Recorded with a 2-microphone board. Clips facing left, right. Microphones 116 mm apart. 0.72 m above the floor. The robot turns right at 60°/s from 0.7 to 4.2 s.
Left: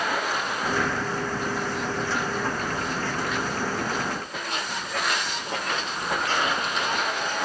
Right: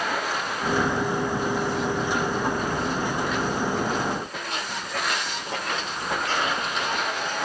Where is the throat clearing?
I don't hear throat clearing.